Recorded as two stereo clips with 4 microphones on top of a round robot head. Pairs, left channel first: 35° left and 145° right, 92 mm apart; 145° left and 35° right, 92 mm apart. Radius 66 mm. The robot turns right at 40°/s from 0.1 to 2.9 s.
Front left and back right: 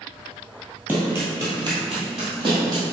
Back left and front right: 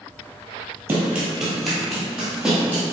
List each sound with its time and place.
0.9 s running footsteps: 80° right, 1.8 m; by 2.8 s 100° right, 3 m